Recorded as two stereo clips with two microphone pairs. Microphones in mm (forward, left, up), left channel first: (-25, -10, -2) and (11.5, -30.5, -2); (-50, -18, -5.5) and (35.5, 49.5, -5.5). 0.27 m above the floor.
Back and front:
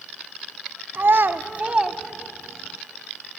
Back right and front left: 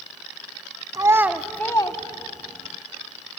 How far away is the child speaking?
About 1.1 m.